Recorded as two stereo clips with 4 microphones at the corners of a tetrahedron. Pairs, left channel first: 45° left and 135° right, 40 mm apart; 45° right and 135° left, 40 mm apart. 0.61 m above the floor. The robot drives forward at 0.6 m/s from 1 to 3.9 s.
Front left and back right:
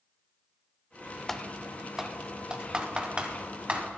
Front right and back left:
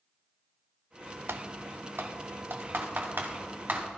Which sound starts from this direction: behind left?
Typing on a keyboard, at 1.3 s.